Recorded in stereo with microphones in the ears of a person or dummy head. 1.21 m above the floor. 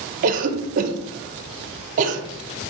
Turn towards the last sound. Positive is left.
turn(degrees=-40)  # may be behind; listen again after turning